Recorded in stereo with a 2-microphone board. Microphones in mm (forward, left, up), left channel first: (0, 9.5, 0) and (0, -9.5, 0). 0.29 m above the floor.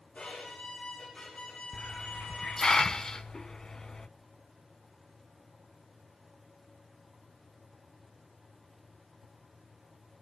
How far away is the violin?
About 8.5 m.